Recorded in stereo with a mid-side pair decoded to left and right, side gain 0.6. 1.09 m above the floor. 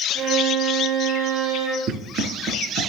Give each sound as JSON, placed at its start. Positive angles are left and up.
{"t": 0.1, "sound": "a violin", "azimuth_deg": -65, "distance_m": 3.0}
{"t": 1.9, "sound": "running footsteps", "azimuth_deg": -55, "distance_m": 5.0}